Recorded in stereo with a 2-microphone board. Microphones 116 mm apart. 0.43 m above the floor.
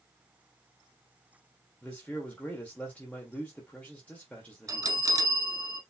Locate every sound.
1.8 s a man speaking: 10° left (ahead or behind), 1.7 m
4.7 s a bell: 30° right (ahead or behind), 0.8 m